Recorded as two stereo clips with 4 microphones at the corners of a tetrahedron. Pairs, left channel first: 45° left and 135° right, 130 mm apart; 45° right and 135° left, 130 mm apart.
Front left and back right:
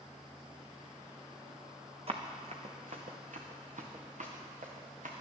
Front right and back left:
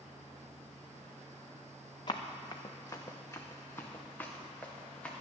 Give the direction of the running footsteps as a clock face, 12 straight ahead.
3 o'clock.